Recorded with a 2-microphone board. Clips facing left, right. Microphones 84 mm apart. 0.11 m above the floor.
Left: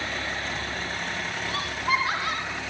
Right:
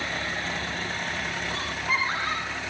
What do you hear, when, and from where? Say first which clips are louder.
1.5 s laughter: left 4 dB; 75° left (ahead or behind), 5.5 m; by 2.6 s 65° left (ahead or behind), 5 m